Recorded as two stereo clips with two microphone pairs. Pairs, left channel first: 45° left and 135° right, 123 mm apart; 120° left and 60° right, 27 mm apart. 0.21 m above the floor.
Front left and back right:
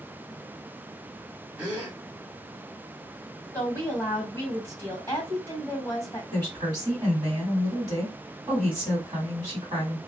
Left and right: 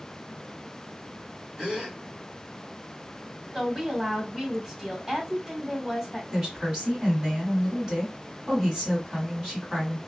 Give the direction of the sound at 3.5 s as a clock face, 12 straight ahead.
12 o'clock.